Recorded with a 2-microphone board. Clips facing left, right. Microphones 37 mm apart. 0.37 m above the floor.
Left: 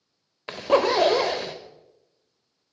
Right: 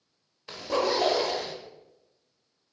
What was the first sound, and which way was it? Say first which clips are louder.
A zipper: left 6 dB; 50° left (ahead or behind).